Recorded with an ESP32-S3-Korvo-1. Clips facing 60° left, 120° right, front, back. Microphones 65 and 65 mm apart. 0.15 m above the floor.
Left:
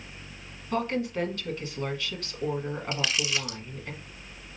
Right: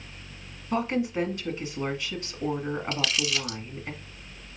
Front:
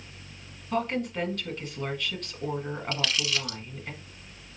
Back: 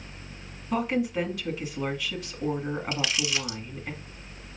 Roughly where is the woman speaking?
Behind right.